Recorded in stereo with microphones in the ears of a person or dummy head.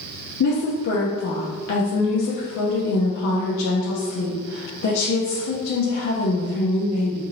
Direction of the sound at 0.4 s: 70° left (ahead or behind).